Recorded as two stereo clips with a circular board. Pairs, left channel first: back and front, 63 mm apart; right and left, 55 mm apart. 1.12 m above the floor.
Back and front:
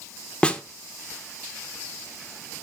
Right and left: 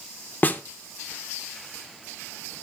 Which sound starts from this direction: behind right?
A snare drum, at 0.4 s.